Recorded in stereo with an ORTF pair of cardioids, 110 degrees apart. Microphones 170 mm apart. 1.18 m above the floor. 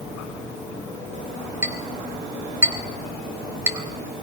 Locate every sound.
1.6 s a clink: 15° right, 4 m